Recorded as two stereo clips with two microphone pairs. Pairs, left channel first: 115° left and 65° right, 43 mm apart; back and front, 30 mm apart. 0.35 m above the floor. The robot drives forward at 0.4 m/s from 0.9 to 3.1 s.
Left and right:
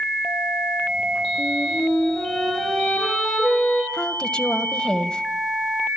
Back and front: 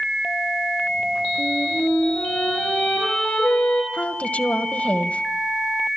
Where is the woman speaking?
Straight behind, 1.7 m.